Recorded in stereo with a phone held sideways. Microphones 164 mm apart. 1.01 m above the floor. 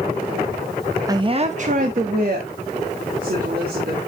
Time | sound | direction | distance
1.1 | a woman speaking | 20° right (ahead or behind) | 0.7 m